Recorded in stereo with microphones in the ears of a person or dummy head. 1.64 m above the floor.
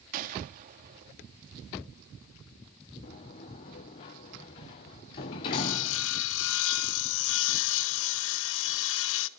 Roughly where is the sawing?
Left.